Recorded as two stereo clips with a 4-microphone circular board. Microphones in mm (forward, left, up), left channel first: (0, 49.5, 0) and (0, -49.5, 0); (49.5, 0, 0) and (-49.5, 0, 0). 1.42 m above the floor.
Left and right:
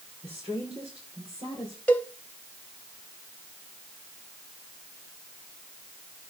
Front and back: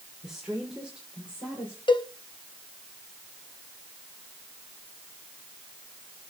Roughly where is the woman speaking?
Right.